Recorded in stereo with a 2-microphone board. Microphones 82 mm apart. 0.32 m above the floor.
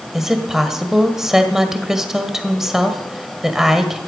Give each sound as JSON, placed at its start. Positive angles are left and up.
{"t": 0.1, "sound": "a woman speaking", "side_deg": -5, "distance_m": 1.5}